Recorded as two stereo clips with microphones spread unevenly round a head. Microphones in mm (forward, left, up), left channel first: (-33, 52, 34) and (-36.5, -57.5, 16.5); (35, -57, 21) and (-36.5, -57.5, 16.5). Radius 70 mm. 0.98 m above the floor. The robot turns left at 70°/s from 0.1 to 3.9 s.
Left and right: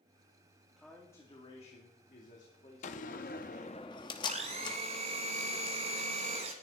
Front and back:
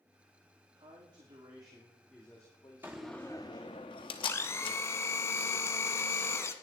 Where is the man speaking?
Straight behind, 2.5 m; by 3.7 s 25° right, 2.5 m.